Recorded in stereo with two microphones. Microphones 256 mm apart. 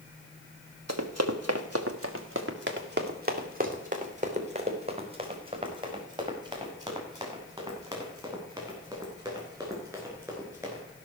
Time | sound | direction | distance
0.9 | running footsteps | 85° right | 1.5 m